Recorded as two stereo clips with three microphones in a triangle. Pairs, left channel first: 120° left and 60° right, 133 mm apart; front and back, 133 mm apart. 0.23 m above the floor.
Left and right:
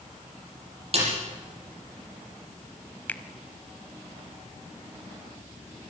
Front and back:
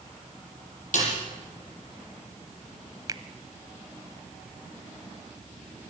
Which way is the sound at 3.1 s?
175° right.